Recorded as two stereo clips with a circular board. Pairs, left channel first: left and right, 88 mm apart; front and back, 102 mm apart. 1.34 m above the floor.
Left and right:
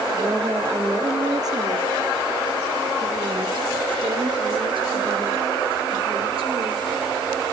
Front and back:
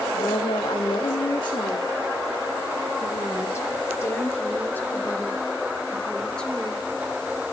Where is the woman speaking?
30° right, 2.5 m; by 6.8 s 85° right, 4 m.